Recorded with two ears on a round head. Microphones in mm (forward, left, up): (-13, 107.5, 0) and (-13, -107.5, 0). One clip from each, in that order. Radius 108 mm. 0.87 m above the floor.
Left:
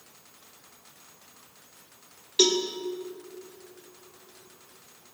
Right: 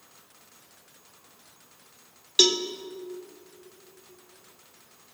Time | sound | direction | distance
2.4 | a cowbell | 55° right (ahead or behind) | 1.8 m